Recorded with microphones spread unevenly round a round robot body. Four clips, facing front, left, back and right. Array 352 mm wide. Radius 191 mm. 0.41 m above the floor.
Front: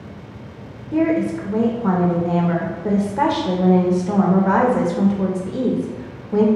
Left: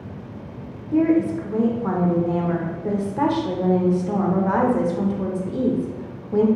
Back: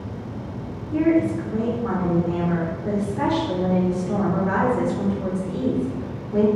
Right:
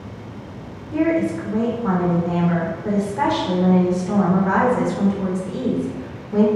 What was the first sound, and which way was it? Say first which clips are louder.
A woman speaking: left 1 dB, front 1 dB; 25° left.